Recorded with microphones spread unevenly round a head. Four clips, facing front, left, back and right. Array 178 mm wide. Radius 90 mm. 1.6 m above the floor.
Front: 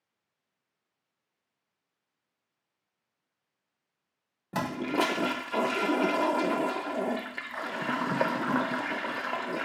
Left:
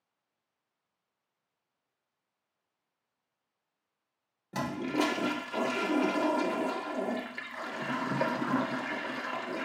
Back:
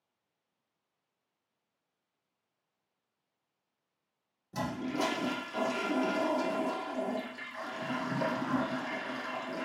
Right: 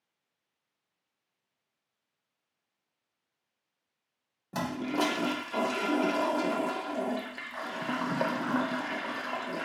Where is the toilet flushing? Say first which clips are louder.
Even, front 5 dB; 15° right, 0.5 m.